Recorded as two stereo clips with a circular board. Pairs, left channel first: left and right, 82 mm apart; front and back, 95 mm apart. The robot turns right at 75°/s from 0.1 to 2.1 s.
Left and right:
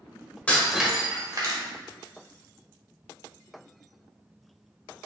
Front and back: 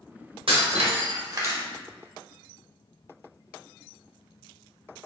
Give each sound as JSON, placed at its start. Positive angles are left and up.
{"t": 0.5, "sound": "breaking glass", "azimuth_deg": 160, "distance_m": 1.0}